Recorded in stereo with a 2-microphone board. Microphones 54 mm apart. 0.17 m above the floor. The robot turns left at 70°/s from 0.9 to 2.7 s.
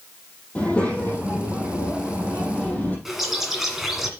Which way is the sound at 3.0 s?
5° right (ahead or behind).